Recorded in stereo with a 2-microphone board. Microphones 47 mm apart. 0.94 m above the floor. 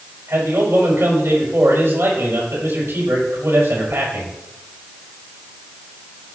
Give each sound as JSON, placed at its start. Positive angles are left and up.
{"t": 0.3, "sound": "a man speaking", "side_deg": -65, "distance_m": 4.5}